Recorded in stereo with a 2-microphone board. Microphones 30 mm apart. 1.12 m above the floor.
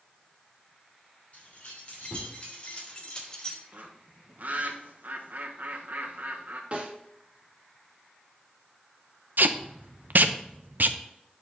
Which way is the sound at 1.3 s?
45° left (ahead or behind).